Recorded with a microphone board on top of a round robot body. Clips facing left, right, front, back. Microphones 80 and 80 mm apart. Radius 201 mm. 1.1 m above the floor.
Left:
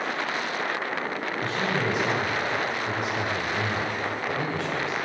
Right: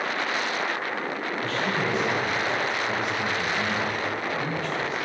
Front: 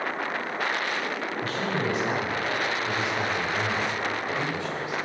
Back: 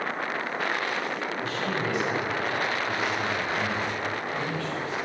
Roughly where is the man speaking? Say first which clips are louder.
Even, front 2 dB; ahead left.